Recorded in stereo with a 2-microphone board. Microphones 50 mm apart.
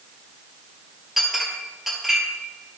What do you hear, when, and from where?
1.2 s a clink: 5° right (ahead or behind), 1.9 m